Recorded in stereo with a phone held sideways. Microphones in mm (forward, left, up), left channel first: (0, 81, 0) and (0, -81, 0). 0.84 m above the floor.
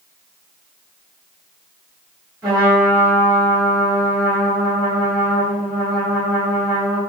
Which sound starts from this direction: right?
A trumpet, at 2.4 s.